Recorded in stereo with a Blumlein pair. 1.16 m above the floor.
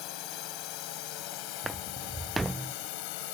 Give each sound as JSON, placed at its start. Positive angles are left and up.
{"t": 0.0, "sound": "a drone", "azimuth_deg": 40}
{"t": 1.6, "sound": "footsteps", "azimuth_deg": -10}